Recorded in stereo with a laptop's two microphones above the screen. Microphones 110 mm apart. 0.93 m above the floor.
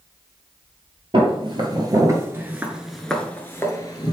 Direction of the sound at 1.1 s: 50° right (ahead or behind).